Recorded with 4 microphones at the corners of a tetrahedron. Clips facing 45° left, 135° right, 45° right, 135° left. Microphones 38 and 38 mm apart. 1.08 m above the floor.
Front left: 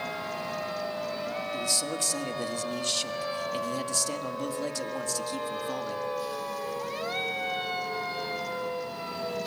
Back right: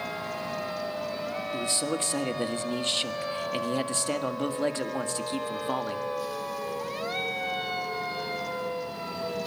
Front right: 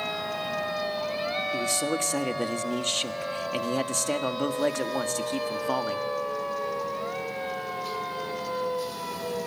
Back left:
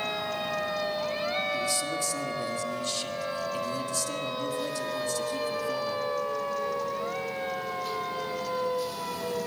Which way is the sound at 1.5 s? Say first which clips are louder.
Back right 2 dB, front right 2 dB; 80° right.